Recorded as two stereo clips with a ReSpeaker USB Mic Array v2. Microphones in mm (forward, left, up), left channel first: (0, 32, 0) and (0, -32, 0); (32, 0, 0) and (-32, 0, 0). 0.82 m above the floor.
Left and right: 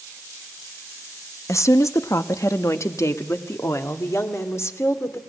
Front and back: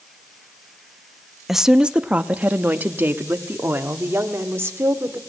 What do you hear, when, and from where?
1.5 s a woman speaking: 95° left, 0.8 m; by 5.2 s 135° left, 2.5 m